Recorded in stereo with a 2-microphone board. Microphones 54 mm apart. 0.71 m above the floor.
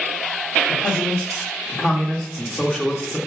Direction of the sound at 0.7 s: 5° left (ahead or behind).